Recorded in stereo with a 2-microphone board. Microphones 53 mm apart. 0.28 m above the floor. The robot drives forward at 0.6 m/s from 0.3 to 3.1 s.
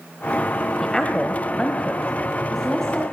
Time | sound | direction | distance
0.8 | a woman speaking | 10° left (ahead or behind) | 1.3 m